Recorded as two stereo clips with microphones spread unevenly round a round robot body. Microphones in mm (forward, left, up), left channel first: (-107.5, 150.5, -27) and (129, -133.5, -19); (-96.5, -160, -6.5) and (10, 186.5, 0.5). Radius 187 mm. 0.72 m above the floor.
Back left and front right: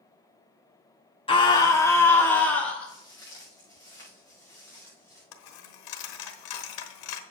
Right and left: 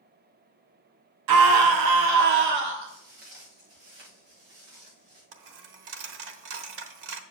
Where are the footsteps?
50° left, 5 m; by 5.2 s 45° left, 6 m.